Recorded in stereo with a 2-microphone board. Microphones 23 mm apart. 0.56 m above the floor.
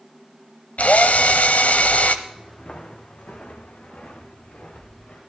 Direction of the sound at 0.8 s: 75° left (ahead or behind).